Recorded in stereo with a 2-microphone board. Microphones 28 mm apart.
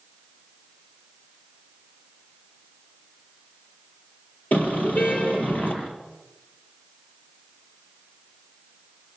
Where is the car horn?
75° left (ahead or behind), 6 m.